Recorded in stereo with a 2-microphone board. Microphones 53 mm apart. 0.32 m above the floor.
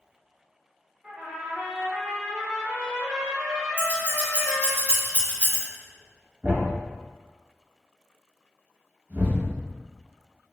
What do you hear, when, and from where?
1.0 s a trumpet: 10° right (ahead or behind), 1.2 m
3.8 s scissors: 30° left (ahead or behind), 1.4 m
6.4 s a thud: 30° right (ahead or behind), 0.7 m